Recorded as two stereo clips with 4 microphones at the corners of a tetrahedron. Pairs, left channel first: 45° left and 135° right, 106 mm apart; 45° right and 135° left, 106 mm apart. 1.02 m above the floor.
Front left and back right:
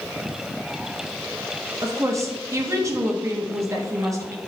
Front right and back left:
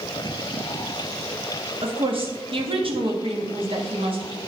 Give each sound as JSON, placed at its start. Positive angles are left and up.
{"t": 1.8, "sound": "a woman speaking", "azimuth_deg": 165, "distance_m": 1.5}